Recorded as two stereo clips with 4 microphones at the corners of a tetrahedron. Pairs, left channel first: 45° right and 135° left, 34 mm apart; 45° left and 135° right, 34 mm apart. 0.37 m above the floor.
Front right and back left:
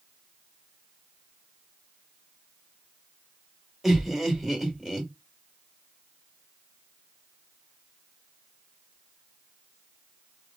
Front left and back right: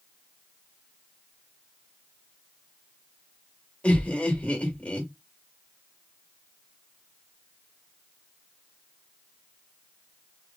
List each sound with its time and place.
3.8 s laughter: 45° left, 1.6 m